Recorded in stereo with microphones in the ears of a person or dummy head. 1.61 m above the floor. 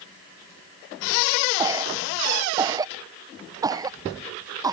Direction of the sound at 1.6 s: 20° right (ahead or behind).